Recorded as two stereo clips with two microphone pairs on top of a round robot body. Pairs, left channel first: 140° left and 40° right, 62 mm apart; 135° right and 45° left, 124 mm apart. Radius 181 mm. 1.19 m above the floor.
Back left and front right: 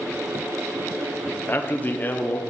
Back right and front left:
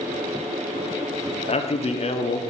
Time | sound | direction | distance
1.5 | a man speaking | 160° right | 1.1 m